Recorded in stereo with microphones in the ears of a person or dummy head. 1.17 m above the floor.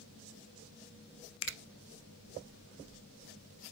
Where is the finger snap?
75° left (ahead or behind), 0.7 m.